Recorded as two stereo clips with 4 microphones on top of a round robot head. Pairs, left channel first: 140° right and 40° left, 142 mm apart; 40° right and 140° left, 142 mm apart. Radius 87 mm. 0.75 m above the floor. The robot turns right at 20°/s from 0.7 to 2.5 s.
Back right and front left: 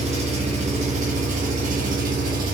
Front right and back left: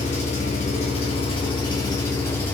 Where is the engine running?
Straight ahead, 1.8 m; by 2.5 s 35° left, 1.8 m.